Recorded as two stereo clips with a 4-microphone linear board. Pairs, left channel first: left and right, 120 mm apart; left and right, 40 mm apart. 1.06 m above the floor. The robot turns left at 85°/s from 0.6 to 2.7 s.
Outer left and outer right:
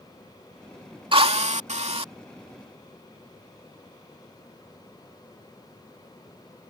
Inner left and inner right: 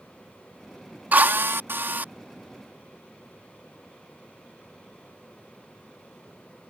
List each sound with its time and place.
1.1 s a drill: 50° right; by 2.1 s 130° right